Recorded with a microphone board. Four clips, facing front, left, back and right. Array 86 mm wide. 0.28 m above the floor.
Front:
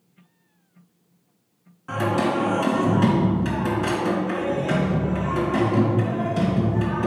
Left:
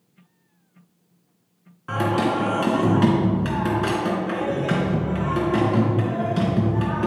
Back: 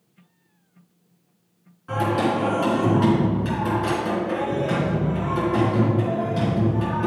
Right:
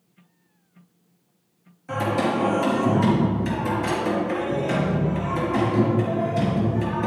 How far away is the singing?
About 3 m.